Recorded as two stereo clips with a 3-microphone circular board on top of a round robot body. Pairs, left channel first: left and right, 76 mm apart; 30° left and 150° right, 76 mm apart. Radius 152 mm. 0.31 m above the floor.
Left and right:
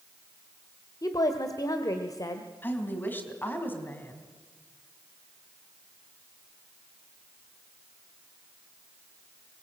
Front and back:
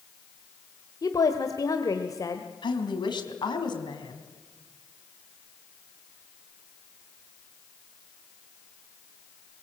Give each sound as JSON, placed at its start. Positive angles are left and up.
{"t": 1.0, "sound": "a woman speaking", "azimuth_deg": 60, "distance_m": 1.8}
{"t": 2.6, "sound": "a woman speaking", "azimuth_deg": 25, "distance_m": 4.0}